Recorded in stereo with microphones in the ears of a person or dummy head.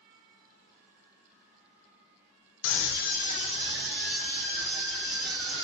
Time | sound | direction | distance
2.6 | a scream | 65° left (ahead or behind) | 0.6 m